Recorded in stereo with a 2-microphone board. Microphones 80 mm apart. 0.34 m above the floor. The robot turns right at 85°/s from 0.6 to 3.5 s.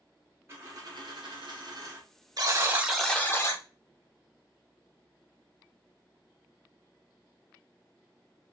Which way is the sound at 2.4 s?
55° right.